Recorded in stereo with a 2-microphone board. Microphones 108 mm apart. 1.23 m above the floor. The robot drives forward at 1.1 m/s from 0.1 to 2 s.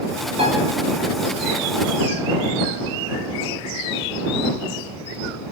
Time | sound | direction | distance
0.4 | a piano | 90° right | 5 m